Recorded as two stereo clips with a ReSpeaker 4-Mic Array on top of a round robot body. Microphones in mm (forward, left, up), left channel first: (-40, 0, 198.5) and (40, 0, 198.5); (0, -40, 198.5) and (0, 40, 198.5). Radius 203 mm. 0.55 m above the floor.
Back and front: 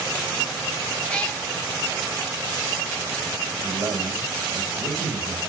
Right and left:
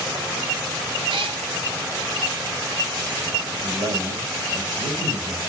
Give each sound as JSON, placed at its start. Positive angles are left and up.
{"t": 1.1, "sound": "a cat meowing", "azimuth_deg": 105, "distance_m": 0.7}
{"t": 3.6, "sound": "a man speaking", "azimuth_deg": 75, "distance_m": 4.5}